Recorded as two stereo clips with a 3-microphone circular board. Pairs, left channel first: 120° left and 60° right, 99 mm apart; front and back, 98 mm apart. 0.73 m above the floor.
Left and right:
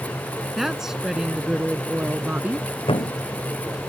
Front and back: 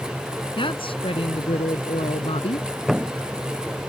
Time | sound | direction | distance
0.6 | a woman speaking | 25° left | ?
2.9 | a thud | 95° left | ?